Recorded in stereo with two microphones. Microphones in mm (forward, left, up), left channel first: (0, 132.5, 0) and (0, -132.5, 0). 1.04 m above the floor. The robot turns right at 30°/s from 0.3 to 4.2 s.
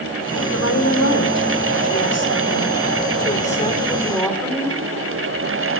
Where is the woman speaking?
65° left, 3 m; by 4.8 s 175° left, 3 m.